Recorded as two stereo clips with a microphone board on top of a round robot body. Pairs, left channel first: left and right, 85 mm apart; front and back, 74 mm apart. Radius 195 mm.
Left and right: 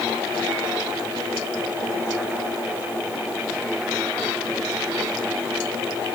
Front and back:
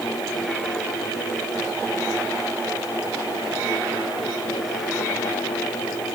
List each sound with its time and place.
Only background noise.